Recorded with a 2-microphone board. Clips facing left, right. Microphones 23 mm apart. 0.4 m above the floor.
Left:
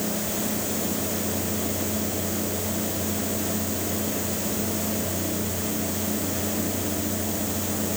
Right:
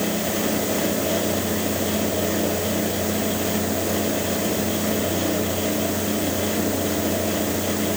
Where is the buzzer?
No buzzer in this recording.